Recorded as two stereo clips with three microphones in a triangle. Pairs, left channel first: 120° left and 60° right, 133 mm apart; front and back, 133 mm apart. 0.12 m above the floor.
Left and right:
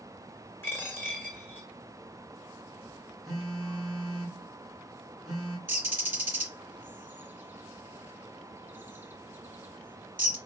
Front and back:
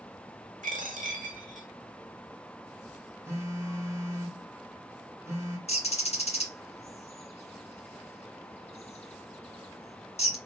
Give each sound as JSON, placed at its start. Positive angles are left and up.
{"t": 0.6, "sound": "a dropped coin", "azimuth_deg": -165, "distance_m": 1.4}
{"t": 3.2, "sound": "a phone buzzing", "azimuth_deg": -150, "distance_m": 1.7}
{"t": 5.7, "sound": "a bird", "azimuth_deg": 10, "distance_m": 1.7}